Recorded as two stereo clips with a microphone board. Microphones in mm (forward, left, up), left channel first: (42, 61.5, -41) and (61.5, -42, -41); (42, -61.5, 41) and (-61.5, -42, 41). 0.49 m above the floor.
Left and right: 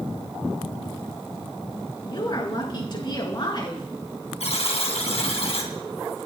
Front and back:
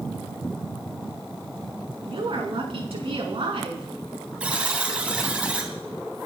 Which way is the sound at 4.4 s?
95° left.